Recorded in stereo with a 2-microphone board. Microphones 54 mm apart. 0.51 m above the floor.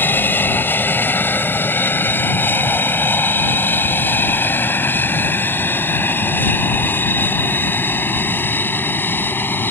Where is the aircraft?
40° left (ahead or behind).